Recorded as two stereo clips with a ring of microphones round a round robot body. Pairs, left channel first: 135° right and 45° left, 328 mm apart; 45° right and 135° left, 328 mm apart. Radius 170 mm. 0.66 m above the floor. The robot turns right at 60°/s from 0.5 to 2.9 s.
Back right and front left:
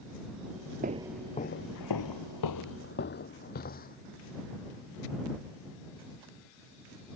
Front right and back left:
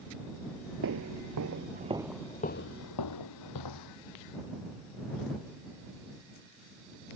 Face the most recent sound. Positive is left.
turn(degrees=-70)